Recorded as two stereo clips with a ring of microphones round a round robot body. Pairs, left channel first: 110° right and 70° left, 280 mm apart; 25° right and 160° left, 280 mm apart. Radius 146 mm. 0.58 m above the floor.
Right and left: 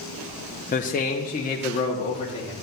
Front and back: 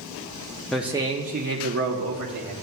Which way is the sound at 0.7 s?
105° right.